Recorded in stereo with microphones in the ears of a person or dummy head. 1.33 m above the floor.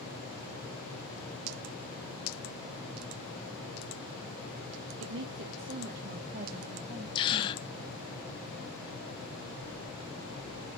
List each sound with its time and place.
5.0 s a woman speaking: 80° right, 0.9 m; by 7.0 s 35° right (ahead or behind), 1.5 m
7.2 s a gasp: 25° left (ahead or behind), 0.5 m